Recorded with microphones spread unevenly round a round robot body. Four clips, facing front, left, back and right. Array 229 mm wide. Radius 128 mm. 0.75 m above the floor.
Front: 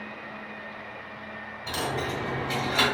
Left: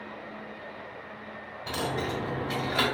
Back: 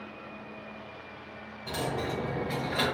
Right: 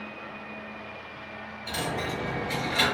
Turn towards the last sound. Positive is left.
turn(degrees=70)